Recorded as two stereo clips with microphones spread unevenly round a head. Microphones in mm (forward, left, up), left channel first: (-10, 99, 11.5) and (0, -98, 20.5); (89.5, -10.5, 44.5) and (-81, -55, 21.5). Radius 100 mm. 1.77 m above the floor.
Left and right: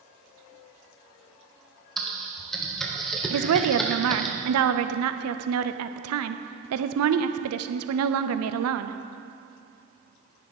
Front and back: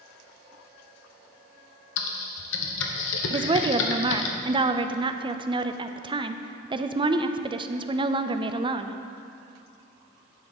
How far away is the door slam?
No door slam in this recording.